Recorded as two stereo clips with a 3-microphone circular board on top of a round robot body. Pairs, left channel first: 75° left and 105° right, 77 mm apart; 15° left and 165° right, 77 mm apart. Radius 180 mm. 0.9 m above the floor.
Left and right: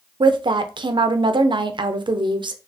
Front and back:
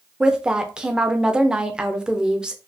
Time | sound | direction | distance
0.2 | a woman speaking | 85° right | 0.6 m